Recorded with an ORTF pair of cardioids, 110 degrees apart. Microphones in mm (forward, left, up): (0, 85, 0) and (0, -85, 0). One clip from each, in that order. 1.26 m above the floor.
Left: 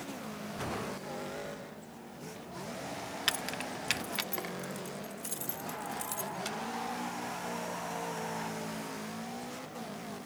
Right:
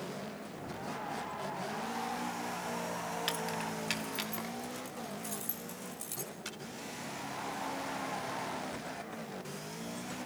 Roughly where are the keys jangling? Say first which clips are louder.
Left 6 dB; ahead left.